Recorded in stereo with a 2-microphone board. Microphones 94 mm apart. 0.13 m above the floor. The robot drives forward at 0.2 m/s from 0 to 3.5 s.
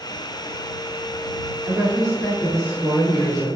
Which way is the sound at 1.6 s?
35° right (ahead or behind).